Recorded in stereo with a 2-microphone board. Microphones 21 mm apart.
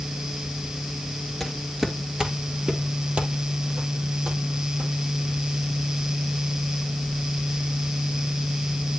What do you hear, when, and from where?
1.4 s footsteps: centre (ahead or behind), 1.6 m; by 4.9 s 70° right (ahead or behind), 4 m